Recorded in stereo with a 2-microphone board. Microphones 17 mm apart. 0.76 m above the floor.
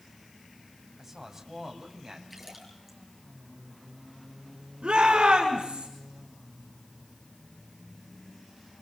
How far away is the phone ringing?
No phone ringing in this recording.